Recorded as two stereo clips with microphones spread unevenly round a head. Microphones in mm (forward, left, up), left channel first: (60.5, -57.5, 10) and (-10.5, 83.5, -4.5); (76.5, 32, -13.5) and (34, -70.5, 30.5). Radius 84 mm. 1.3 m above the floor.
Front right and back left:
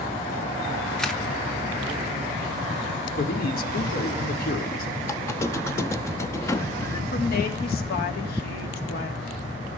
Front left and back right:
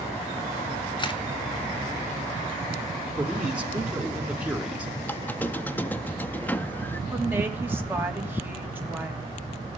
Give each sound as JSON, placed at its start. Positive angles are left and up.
{"t": 1.0, "sound": "a camera shutter", "azimuth_deg": 25, "distance_m": 2.5}
{"t": 3.2, "sound": "a man speaking", "azimuth_deg": -35, "distance_m": 2.5}
{"t": 5.0, "sound": "a squeak", "azimuth_deg": -35, "distance_m": 0.7}
{"t": 7.1, "sound": "a woman speaking", "azimuth_deg": -40, "distance_m": 3.0}